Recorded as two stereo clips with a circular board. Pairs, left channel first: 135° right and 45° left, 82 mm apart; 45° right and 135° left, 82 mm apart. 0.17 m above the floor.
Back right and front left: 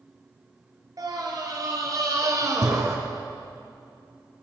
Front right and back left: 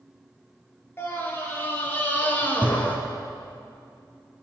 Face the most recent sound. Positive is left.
turn(degrees=15)